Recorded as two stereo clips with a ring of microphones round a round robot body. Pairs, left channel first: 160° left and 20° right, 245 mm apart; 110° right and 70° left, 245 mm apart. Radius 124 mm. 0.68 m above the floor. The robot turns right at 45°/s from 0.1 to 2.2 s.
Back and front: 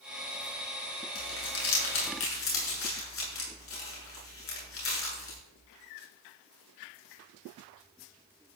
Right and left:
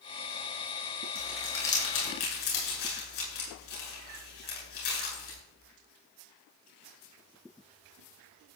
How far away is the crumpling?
About 8.5 m.